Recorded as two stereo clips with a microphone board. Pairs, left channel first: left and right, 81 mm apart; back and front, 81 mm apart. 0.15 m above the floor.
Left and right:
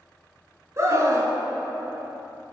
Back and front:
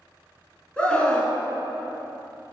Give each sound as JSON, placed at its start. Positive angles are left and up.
{"t": 0.8, "sound": "a scream", "azimuth_deg": -110, "distance_m": 1.5}